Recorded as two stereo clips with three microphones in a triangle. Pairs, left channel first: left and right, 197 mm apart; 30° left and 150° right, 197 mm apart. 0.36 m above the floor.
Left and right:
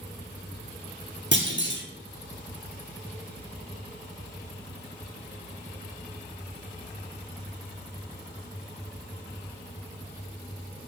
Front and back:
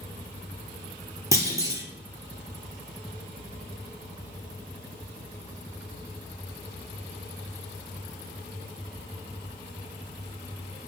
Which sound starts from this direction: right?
A clunk, at 1.3 s.